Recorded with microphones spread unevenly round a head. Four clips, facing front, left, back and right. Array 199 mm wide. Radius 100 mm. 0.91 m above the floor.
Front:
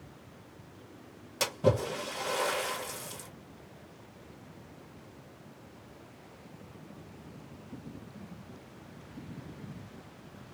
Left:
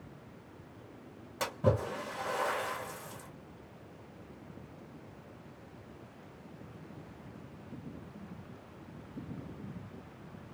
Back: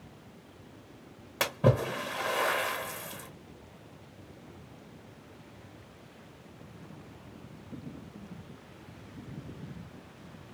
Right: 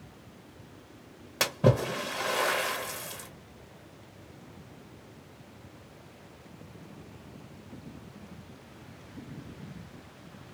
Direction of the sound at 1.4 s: 125° right.